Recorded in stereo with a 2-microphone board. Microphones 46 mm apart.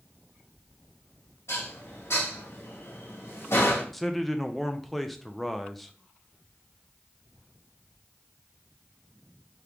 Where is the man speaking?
5° left (ahead or behind), 0.5 m.